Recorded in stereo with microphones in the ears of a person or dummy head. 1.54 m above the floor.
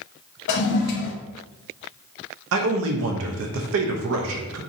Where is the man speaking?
65° right (ahead or behind), 0.6 m.